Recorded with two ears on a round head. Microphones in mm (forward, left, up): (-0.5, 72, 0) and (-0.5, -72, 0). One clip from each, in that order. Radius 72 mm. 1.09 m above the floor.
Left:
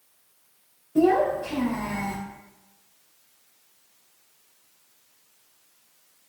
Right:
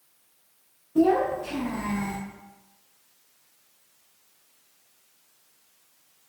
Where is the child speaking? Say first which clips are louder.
Left 1 dB; 80° left, 0.9 m.